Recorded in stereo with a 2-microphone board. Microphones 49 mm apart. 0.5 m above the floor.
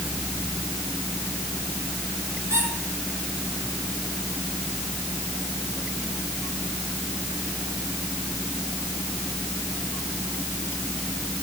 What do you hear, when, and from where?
2.5 s a squeak: 75° right (ahead or behind), 5.5 m